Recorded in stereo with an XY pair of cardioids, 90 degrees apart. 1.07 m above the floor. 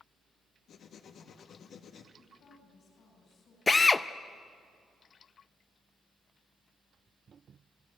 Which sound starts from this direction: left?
Writing, at 0.7 s.